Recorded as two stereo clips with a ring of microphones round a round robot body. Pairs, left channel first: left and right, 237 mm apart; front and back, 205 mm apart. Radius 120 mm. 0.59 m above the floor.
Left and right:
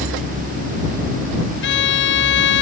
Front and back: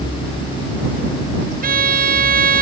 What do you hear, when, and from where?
1.6 s a violin: 135° left